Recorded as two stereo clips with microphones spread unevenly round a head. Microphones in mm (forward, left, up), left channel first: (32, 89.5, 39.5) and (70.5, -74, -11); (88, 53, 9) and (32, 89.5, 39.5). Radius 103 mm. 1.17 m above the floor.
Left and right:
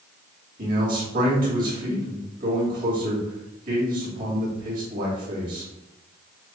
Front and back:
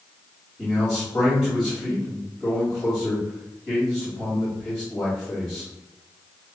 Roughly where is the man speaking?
Right.